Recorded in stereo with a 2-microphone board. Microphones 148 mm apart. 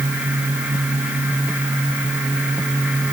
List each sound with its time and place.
Only background noise.